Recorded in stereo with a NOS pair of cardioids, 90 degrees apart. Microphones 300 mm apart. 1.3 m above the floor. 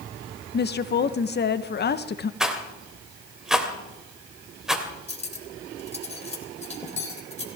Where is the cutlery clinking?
20° left, 3.5 m.